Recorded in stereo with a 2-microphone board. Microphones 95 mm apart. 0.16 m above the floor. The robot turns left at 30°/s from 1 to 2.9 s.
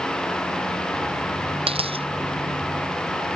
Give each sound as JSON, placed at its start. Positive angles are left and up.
{"t": 1.7, "sound": "a dropped coin", "side_deg": -85}